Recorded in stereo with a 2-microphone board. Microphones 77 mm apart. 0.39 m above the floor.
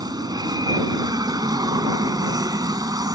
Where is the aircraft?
55° right (ahead or behind).